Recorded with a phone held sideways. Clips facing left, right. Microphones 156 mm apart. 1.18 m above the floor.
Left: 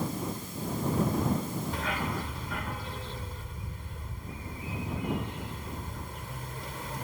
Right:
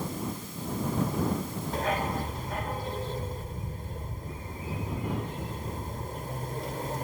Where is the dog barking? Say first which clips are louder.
Right 4 dB; 40° right (ahead or behind).